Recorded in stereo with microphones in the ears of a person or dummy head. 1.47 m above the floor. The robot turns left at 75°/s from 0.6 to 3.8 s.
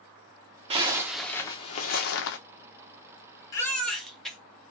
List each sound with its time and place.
0.7 s a zipper: 145° right, 0.9 m; by 2.4 s 90° left, 0.9 m
3.5 s a baby crying: 25° left (ahead or behind), 1.3 m; by 4.4 s 5° left (ahead or behind), 1.3 m